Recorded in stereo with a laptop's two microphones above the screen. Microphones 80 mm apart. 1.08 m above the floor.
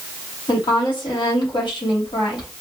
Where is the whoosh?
No whoosh in this recording.